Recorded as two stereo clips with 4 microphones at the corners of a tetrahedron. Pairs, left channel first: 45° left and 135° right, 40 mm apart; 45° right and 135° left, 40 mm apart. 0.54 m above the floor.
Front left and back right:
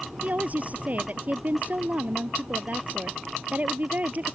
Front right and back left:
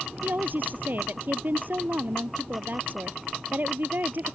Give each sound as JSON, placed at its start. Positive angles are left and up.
{"t": 0.2, "sound": "a woman speaking", "azimuth_deg": 175}